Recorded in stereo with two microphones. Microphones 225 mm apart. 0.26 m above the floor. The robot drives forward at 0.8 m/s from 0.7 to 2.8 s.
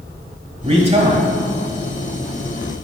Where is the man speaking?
25° right (ahead or behind), 1.3 m; by 1.2 s 30° right (ahead or behind), 1.3 m.